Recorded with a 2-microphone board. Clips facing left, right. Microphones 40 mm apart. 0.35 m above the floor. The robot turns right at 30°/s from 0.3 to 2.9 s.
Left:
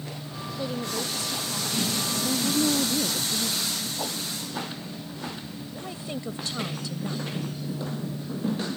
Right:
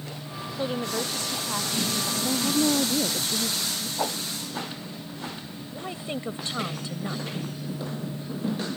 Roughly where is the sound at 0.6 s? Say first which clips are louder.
Right 2 dB; behind right.